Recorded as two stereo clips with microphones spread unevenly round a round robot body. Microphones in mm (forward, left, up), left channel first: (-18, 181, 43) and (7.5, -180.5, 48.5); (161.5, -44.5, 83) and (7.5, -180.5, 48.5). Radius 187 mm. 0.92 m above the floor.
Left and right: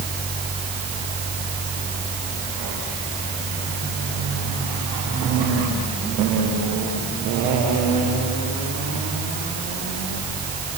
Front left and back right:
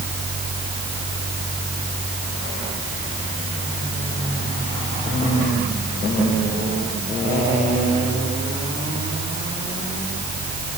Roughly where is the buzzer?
No buzzer in this recording.